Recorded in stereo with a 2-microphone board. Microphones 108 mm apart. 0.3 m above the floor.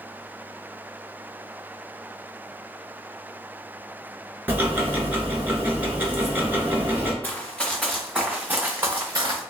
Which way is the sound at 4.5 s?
20° right (ahead or behind).